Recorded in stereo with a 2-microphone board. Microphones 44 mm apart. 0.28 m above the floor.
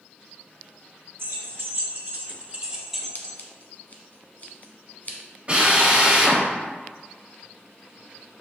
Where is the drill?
30° right (ahead or behind), 1.7 m.